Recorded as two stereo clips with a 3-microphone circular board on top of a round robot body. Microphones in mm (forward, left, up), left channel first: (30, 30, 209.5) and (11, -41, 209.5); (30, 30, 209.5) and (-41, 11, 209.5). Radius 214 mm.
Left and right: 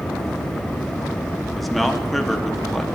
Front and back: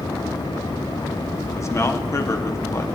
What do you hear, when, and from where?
1.6 s a man speaking: 15° right, 1.4 m